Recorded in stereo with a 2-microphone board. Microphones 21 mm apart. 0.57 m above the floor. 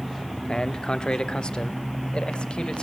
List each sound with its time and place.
0.5 s a man speaking: 35° left (ahead or behind), 0.9 m; by 2.8 s 50° left (ahead or behind), 2 m